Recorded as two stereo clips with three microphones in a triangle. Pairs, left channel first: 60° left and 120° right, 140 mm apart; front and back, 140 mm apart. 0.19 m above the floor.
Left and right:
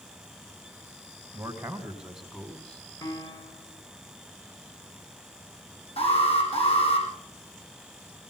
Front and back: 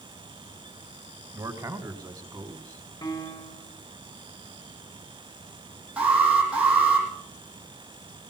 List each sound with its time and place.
1.3 s a man speaking: 165° right, 1.5 m; by 2.9 s 130° left, 1.7 m
3.0 s a piano: 25° left, 1.2 m
6.0 s an alarm: 95° left, 5.5 m